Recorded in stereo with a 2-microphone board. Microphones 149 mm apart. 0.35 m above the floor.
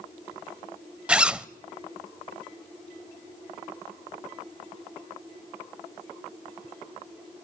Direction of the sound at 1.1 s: 5° right (ahead or behind).